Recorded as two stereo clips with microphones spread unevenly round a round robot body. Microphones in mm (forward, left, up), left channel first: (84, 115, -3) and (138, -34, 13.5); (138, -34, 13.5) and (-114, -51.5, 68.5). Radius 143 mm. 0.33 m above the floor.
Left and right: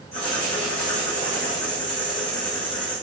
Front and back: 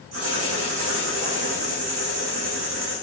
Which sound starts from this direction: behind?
Writing, at 0.1 s.